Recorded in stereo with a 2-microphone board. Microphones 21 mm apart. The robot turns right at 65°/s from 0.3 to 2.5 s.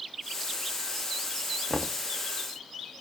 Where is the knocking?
20° left (ahead or behind), 0.6 m; by 2.0 s centre (ahead or behind), 0.6 m.